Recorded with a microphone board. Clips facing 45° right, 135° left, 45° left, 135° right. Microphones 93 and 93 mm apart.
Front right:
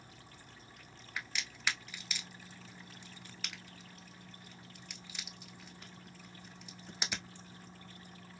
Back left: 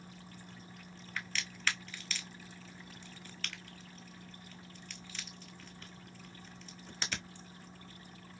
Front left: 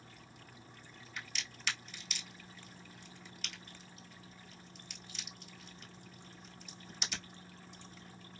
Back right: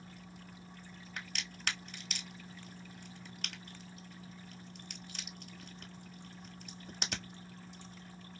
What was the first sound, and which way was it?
A crack, 120° right.